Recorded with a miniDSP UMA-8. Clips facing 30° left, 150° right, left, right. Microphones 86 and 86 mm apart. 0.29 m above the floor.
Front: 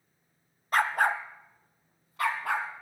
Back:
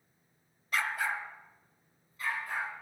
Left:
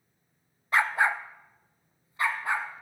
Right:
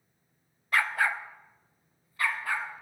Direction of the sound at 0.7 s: 30° left.